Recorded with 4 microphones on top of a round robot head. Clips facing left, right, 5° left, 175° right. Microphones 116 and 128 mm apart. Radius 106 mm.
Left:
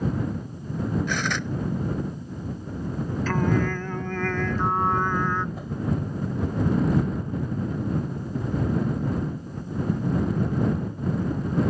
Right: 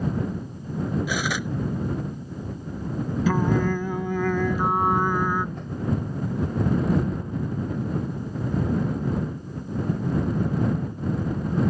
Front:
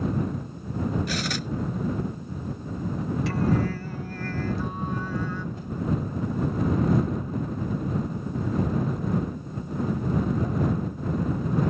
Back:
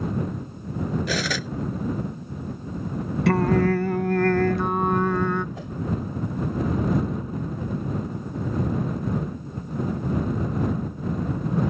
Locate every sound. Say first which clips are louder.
1.1 s cutlery clinking: right 1 dB, back 3 dB; 175° right
3.3 s singing: right 2 dB, back 7 dB; 165° right
5.5 s a whoosh: left 1 dB, even; 175° left